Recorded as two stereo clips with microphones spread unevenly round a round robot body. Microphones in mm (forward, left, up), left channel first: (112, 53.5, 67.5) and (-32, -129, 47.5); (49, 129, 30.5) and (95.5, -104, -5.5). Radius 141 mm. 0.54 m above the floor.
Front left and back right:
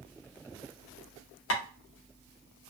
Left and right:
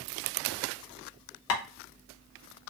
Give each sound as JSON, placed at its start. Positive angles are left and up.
{"t": 1.5, "sound": "tapping", "azimuth_deg": 80, "distance_m": 0.5}